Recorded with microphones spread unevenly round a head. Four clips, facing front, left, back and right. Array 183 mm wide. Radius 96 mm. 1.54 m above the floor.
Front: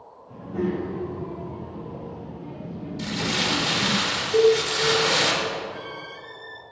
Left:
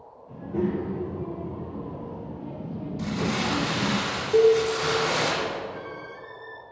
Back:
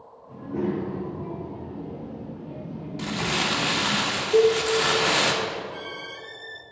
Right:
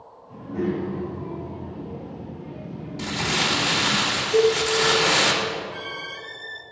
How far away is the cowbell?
About 1.8 m.